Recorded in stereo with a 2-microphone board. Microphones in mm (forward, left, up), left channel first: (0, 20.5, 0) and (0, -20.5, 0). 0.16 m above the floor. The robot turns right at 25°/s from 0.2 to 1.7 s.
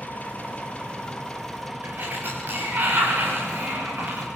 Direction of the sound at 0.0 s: 140° left.